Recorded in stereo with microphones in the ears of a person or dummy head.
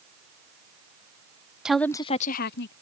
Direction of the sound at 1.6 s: 5° right (ahead or behind).